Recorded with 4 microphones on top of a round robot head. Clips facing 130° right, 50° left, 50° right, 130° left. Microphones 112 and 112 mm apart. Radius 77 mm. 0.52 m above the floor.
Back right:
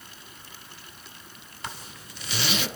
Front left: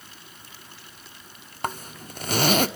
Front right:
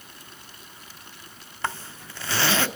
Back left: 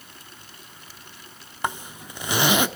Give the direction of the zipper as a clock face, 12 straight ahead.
10 o'clock.